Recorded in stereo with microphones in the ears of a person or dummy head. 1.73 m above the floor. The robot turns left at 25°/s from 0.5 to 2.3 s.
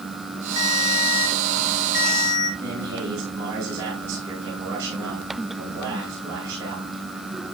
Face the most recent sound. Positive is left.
turn(degrees=-20)  # may be behind; listen again after turning